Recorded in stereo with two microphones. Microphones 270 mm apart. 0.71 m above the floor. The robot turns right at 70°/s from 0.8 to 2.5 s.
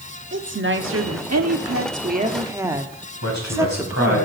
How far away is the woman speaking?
About 1.2 m.